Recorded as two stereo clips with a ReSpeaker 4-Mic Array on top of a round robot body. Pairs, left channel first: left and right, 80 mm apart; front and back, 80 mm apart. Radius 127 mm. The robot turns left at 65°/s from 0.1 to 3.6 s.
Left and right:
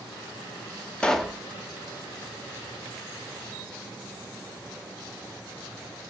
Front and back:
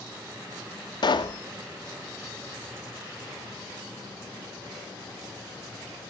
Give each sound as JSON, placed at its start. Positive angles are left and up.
{"t": 1.0, "sound": "a pop", "azimuth_deg": 15, "distance_m": 0.5}